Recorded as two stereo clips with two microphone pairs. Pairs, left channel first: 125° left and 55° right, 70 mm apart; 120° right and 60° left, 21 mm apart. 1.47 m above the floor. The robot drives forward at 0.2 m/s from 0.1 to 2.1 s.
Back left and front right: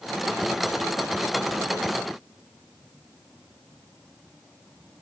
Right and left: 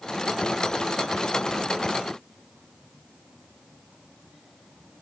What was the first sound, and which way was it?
Only background noise.